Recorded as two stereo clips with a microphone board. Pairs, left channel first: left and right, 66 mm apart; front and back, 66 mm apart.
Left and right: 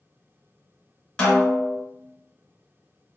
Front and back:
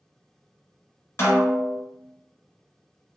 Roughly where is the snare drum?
Ahead.